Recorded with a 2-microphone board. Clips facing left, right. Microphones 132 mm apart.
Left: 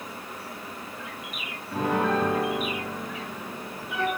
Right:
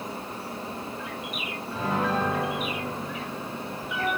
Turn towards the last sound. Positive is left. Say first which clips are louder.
# left 3 dB
turn(degrees=55)  # may be behind; listen again after turning